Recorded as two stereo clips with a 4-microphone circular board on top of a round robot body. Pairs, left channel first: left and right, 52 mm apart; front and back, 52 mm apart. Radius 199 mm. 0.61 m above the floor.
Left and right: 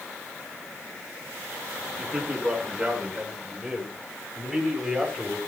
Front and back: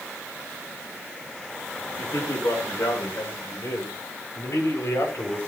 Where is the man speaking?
5° right, 8 m; by 5.4 s straight ahead, 6 m.